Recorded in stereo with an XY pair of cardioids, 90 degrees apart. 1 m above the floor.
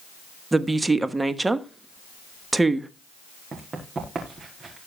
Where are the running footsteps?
45° right, 4.5 m.